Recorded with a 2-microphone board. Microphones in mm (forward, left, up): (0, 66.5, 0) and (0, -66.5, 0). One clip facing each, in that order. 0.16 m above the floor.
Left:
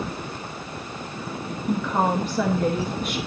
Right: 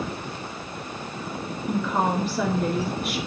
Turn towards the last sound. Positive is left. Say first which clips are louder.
# left 1 dB
turn(degrees=-5)  # may be behind; listen again after turning